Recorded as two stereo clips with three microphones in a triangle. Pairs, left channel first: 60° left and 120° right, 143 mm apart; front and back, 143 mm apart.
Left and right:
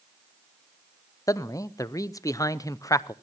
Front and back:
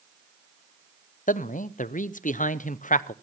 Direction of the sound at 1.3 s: 5° right.